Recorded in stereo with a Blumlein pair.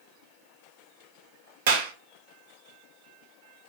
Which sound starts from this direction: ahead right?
A clap, at 1.7 s.